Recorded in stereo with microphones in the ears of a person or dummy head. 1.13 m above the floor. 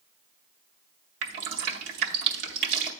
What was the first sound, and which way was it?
Dripping, 45° right (ahead or behind).